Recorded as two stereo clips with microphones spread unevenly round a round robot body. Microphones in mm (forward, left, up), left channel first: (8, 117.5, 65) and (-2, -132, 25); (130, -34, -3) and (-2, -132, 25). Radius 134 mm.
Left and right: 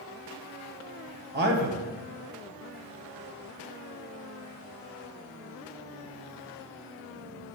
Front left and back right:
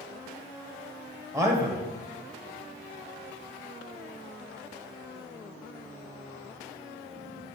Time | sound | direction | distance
1.3 | a man speaking | 65° right | 1.5 m